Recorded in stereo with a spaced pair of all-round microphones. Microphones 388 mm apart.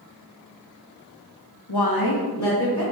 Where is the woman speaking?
75° left (ahead or behind), 0.7 m; by 2.8 s 35° left (ahead or behind), 1.6 m.